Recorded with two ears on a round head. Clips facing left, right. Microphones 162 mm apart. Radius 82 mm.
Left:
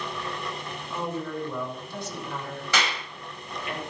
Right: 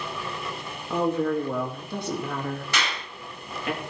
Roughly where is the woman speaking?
Right.